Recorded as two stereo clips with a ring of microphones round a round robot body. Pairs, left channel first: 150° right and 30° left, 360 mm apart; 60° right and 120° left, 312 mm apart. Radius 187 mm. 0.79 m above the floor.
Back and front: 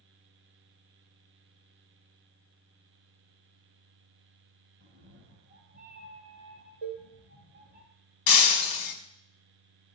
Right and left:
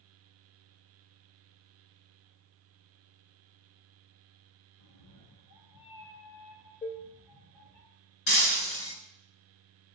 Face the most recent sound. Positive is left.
turn(degrees=-115)